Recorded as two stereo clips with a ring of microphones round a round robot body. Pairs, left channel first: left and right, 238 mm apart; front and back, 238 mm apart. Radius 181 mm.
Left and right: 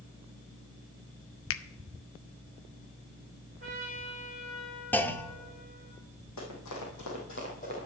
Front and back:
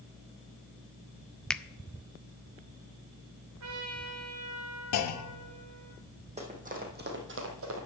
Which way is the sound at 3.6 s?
155° right.